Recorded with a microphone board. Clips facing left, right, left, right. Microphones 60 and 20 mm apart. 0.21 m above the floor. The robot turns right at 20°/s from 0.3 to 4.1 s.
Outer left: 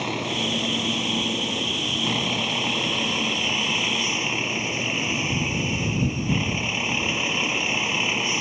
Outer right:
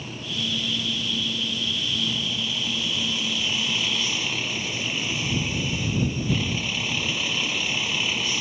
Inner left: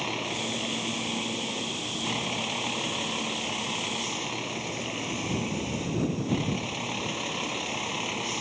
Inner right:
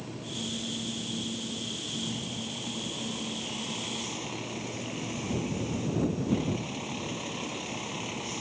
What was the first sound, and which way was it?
A vehicle, 80° left.